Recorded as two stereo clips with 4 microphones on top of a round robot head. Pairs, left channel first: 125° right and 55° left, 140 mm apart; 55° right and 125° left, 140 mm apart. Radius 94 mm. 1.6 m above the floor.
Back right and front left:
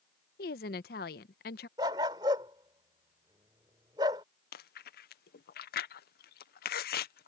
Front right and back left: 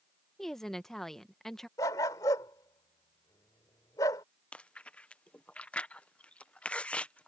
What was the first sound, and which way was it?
A woman speaking, 140° right.